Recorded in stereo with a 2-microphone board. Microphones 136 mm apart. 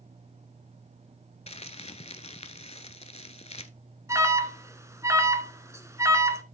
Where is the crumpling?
50° left (ahead or behind), 0.7 m.